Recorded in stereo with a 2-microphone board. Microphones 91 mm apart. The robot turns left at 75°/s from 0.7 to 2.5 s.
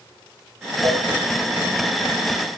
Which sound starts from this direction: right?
A cowbell, at 0.8 s.